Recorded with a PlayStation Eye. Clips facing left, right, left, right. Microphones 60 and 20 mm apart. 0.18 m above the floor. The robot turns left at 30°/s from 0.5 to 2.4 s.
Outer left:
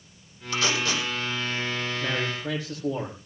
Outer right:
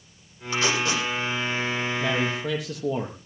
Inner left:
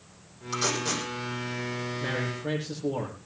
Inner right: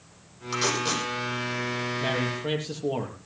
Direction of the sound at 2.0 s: 75° right (ahead or behind).